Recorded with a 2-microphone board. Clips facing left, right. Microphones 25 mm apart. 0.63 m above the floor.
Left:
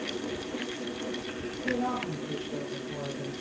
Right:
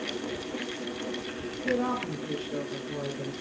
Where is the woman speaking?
65° right (ahead or behind), 7.5 m; by 3.3 s 80° right, 7 m.